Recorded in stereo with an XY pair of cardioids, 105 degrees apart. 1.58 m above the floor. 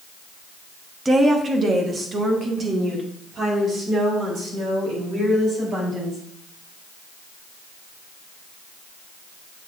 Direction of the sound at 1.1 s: 25° right.